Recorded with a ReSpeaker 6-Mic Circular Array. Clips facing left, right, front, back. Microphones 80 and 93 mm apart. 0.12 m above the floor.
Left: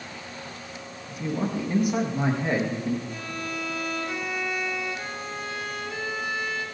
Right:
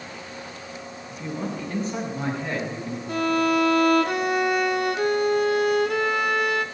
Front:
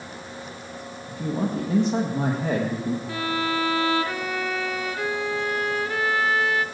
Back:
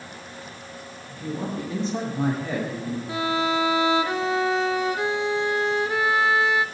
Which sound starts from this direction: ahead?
A man speaking, at 1.1 s.